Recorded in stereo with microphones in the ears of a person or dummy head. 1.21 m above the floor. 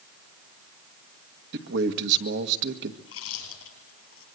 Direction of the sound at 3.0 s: 85° left.